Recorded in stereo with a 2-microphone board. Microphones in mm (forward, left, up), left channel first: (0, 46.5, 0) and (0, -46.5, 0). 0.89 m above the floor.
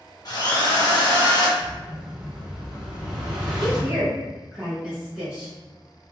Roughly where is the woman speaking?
Centre.